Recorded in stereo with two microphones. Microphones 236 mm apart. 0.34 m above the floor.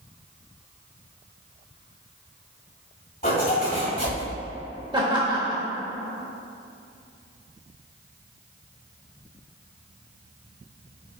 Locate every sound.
3.2 s a zipper: 40° left (ahead or behind), 2 m
4.9 s laughter: 20° right (ahead or behind), 1.1 m